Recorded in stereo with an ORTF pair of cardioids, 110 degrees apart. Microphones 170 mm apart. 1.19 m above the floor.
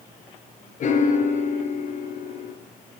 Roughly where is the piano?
Ahead left.